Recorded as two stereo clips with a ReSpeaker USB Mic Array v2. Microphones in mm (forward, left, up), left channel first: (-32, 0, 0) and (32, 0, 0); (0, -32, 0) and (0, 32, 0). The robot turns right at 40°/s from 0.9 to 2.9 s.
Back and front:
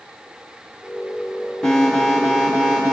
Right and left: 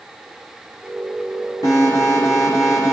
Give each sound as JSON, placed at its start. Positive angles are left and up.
{"t": 1.6, "sound": "an alarm", "azimuth_deg": -100, "distance_m": 6.5}